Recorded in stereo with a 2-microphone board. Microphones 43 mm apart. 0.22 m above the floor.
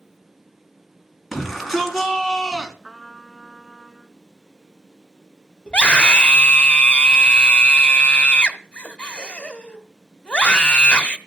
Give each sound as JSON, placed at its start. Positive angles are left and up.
{"t": 1.3, "sound": "a shout", "side_deg": 5, "distance_m": 3.0}
{"t": 2.8, "sound": "a trumpet", "side_deg": -25, "distance_m": 1.8}
{"t": 5.7, "sound": "a scream", "side_deg": 25, "distance_m": 1.6}